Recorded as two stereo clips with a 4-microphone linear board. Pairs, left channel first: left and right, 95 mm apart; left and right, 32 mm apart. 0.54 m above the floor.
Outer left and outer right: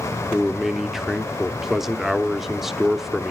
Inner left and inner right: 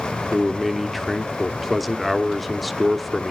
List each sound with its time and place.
0.3 s a man speaking: 5° right (ahead or behind), 0.8 m